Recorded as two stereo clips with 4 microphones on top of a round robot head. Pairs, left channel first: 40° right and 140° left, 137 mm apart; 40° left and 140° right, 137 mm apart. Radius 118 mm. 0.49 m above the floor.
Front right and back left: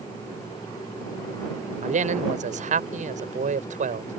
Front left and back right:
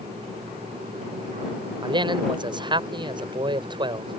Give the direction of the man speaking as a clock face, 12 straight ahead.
6 o'clock.